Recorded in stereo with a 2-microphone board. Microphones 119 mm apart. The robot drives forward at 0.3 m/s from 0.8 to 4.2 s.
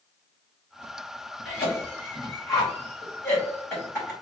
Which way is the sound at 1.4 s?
20° left (ahead or behind).